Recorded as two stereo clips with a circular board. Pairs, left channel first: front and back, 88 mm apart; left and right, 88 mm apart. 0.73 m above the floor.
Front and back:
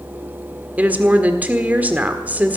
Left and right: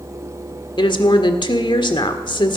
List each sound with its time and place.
0.8 s a woman speaking: 110° left, 1.6 m